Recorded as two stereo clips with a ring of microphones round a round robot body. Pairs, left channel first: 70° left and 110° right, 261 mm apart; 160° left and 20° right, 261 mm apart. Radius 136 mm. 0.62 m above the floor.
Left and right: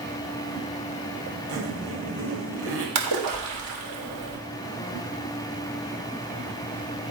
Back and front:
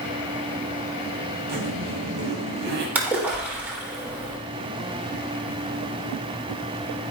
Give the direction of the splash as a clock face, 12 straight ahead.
4 o'clock.